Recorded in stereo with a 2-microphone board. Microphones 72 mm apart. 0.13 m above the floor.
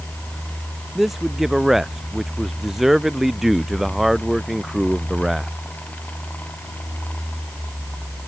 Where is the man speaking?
5° right (ahead or behind).